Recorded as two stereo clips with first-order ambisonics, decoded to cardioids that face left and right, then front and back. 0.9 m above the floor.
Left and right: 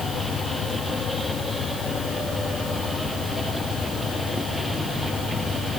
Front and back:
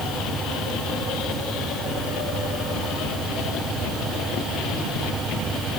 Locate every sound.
Only background noise.